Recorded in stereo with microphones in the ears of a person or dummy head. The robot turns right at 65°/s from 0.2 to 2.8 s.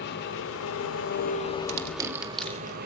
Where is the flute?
No flute in this recording.